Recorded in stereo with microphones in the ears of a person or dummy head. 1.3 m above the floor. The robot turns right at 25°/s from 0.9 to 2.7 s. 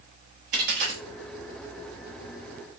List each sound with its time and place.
0.5 s a dropped coin: 65° right (ahead or behind), 1.1 m; by 1.0 s 60° right (ahead or behind), 1.1 m